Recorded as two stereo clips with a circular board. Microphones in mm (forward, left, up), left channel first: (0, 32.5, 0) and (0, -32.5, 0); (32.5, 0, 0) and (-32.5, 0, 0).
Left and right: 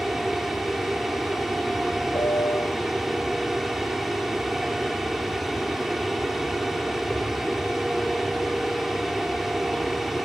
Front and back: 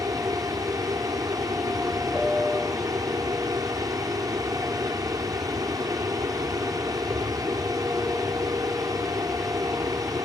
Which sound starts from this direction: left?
A piano, at 2.1 s.